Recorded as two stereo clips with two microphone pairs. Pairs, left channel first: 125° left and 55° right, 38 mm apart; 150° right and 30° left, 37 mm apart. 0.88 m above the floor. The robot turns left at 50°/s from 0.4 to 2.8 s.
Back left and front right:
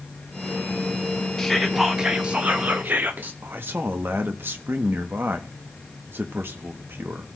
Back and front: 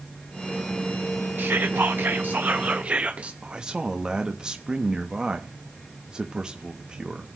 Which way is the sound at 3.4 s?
35° right.